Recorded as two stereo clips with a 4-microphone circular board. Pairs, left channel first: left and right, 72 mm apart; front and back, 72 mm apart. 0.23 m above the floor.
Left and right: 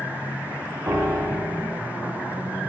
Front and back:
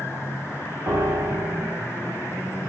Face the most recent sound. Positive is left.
turn(degrees=-135)